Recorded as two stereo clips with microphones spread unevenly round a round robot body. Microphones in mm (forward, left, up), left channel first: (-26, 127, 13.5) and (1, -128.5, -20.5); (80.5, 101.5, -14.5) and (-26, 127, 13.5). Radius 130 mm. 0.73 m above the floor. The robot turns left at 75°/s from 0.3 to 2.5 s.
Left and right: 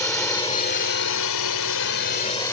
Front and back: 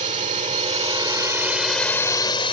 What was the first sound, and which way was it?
A drone, 175° left.